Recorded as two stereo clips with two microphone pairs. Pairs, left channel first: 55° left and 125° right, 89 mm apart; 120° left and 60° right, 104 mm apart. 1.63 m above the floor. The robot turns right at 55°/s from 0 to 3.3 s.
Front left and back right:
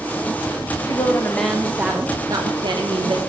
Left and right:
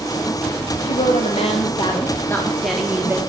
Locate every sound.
0.8 s a woman speaking: 110° left, 0.7 m; by 3.2 s 120° right, 0.7 m